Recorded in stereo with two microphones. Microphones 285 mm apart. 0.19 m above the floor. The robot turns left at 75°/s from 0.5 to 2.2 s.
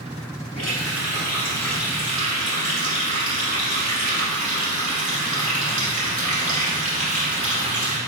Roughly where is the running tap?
Left.